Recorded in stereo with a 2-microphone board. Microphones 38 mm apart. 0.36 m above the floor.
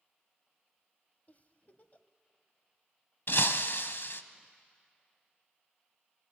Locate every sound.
1.3 s a giggle: 45° left (ahead or behind), 0.9 m
3.3 s breaking glass: 75° left (ahead or behind), 0.8 m